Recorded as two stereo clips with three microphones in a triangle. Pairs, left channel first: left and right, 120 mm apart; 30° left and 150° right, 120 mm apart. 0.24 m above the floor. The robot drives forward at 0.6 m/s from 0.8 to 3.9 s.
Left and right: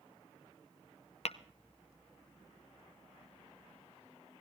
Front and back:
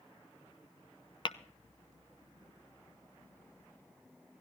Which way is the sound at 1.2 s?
70° left.